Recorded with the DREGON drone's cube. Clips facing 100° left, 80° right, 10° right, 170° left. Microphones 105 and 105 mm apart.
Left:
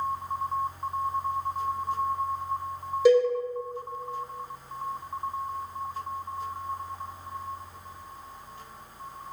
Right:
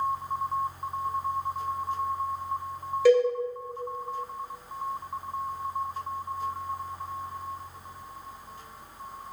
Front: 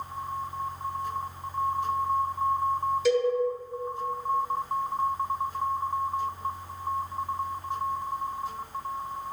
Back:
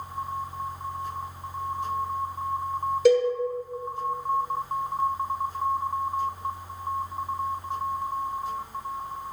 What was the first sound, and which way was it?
A cowbell, 165° left.